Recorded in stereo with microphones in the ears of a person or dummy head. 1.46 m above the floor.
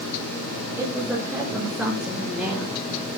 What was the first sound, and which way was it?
A woman speaking, 5° right (ahead or behind).